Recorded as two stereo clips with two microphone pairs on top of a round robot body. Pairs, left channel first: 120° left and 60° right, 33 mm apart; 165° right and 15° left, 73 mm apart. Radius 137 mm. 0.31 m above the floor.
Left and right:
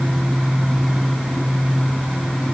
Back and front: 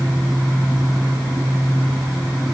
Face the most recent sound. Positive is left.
No sound to turn to.